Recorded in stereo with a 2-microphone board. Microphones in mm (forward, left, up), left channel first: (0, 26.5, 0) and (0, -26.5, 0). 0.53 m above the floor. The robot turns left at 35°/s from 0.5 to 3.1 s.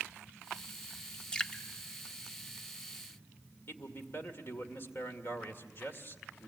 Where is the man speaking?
50° left (ahead or behind), 2 m.